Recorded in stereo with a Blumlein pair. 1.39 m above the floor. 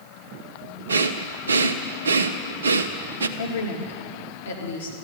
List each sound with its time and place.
0.9 s breathing: 70° right, 0.6 m
3.4 s a woman speaking: 70° left, 2.5 m